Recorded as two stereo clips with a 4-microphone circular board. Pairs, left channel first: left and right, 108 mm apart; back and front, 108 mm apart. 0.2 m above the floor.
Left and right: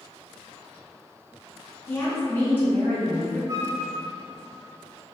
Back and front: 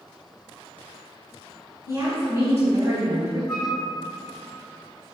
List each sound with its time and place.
1.9 s a woman speaking: 35° left, 1.3 m
3.5 s a flute: 95° right, 1.9 m